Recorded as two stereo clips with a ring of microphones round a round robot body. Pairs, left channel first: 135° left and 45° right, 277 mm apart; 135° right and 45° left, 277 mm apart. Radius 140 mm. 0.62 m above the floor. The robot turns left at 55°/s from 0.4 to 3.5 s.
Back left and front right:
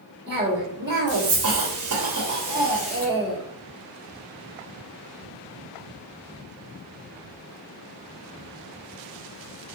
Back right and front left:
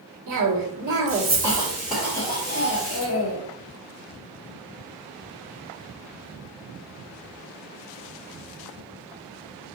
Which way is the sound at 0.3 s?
30° left.